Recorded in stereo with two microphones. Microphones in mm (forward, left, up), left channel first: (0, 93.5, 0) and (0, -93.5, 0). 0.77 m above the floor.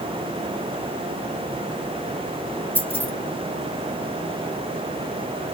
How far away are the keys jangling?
About 2.5 m.